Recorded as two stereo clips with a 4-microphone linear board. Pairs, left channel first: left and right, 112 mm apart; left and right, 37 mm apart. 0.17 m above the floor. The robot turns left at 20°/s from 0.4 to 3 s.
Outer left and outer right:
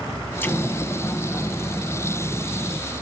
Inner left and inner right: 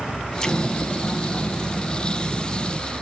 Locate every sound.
0.4 s an explosion: 20° left (ahead or behind), 0.7 m; by 2.8 s 15° left (ahead or behind), 0.7 m